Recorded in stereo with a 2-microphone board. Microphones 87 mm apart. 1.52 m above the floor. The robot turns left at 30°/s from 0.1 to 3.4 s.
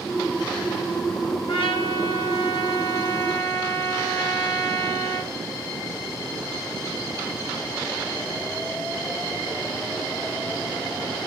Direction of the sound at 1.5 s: 95° left.